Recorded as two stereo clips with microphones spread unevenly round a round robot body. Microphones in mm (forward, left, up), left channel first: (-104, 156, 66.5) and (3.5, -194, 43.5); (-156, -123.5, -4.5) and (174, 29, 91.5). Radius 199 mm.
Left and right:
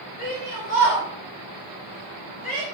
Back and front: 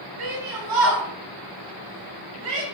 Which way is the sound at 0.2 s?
40° left.